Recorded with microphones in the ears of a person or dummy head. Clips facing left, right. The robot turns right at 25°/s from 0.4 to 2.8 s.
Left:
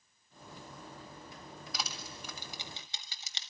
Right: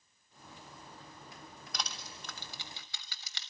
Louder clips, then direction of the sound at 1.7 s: Even; centre (ahead or behind).